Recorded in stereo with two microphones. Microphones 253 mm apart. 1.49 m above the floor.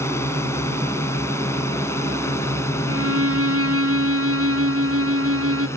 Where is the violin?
70° right (ahead or behind).